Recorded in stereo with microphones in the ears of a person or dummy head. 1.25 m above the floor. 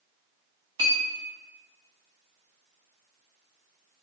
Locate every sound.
0.8 s a clink: 20° right (ahead or behind), 0.7 m